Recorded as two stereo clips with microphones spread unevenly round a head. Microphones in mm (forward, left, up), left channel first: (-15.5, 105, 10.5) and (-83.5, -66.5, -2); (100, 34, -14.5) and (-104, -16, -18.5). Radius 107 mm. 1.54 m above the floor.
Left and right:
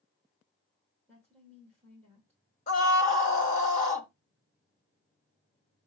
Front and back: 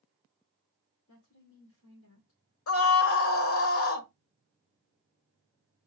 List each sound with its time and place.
1.1 s a woman speaking: 15° right, 2 m
2.7 s a scream: 15° left, 1.1 m